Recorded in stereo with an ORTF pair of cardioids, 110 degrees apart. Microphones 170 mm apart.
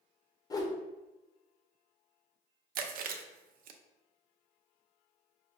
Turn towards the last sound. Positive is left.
turn(degrees=-60)